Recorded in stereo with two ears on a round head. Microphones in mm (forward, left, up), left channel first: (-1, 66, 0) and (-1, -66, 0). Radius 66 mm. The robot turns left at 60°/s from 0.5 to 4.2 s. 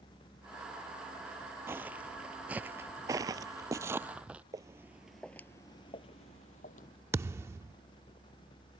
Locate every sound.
1.7 s footsteps: 20° right (ahead or behind); by 4.4 s 10° right (ahead or behind)
4.5 s footsteps: 25° right (ahead or behind); by 6.9 s 60° left (ahead or behind)
7.1 s a thud: 20° right (ahead or behind)